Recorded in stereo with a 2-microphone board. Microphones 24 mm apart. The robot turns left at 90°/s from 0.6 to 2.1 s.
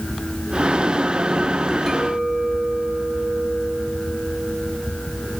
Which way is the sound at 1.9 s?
5° left (ahead or behind).